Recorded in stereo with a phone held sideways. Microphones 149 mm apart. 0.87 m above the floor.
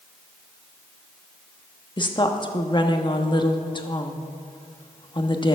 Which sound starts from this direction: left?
A woman speaking, at 2.0 s.